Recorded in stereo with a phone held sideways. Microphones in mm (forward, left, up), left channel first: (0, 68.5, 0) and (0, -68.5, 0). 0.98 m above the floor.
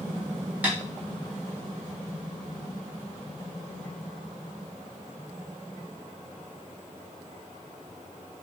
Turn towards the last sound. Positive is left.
turn(degrees=-10)  # may be behind; listen again after turning